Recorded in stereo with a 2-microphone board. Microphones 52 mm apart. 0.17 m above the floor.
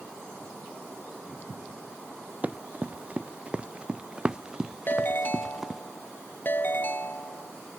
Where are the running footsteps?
30° right (ahead or behind); by 5.8 s 5° right (ahead or behind).